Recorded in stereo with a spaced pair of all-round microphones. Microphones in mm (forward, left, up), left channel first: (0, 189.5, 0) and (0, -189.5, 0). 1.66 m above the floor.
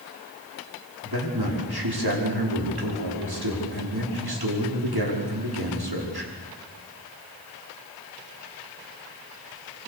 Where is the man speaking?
75° right (ahead or behind), 5.5 m.